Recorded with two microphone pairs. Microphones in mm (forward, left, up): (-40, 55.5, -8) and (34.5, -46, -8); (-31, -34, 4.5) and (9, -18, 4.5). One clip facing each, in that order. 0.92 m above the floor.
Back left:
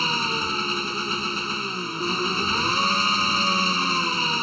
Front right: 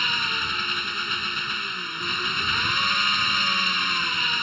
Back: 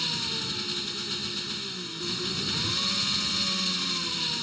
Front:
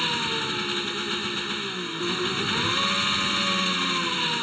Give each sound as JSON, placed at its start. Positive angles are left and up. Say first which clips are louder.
{"t": 0.0, "sound": "an engine running", "louder": "back left 4 dB, front 6 dB", "azimuth_deg": 75}